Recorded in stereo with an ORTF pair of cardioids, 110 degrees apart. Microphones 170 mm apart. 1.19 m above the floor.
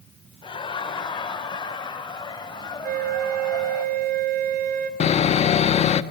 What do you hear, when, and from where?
0.4 s laughter: 30° left, 5 m; by 3.8 s 25° left, 7.5 m
2.8 s a flute: 65° right, 4 m
5.0 s sawing: 40° left, 1.4 m